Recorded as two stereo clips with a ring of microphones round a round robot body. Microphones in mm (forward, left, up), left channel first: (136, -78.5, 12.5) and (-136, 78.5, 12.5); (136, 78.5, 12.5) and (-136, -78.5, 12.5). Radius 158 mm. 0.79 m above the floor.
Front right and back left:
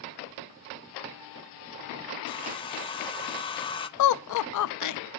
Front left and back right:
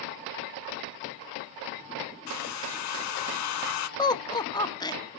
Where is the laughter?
45° right, 0.7 m.